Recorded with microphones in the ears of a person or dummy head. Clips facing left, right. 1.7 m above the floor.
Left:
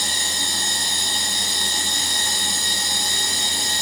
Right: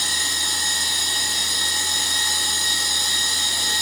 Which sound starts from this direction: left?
A machine running, at 0.0 s.